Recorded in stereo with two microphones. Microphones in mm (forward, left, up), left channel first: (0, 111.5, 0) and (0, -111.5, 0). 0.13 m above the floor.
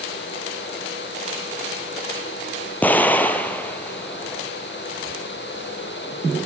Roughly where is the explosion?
Centre.